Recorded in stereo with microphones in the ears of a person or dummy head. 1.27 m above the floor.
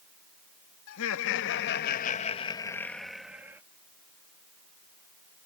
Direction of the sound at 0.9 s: 85° left.